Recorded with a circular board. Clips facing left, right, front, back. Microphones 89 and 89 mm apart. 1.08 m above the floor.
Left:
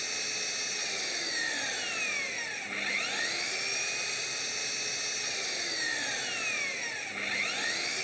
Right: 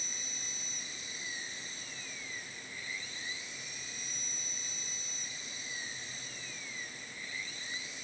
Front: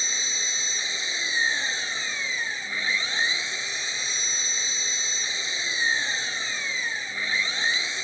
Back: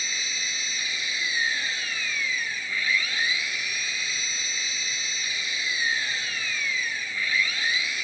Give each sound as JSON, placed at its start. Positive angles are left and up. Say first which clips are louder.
{"t": 0.0, "sound": "an engine running", "louder": "left 8 dB, even", "azimuth_deg": 65}